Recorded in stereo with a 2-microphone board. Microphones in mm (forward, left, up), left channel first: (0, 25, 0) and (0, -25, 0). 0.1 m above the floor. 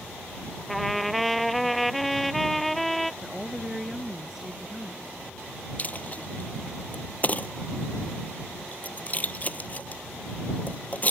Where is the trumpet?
5° left (ahead or behind).